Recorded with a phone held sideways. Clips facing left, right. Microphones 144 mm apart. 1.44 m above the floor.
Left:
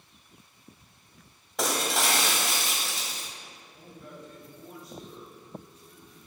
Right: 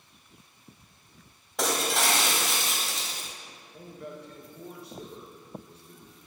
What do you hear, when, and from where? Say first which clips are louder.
1.6 s breaking glass: right 1 dB; centre (ahead or behind), 1.7 m
3.7 s a man speaking: right 5 dB; 65° right (ahead or behind), 1.8 m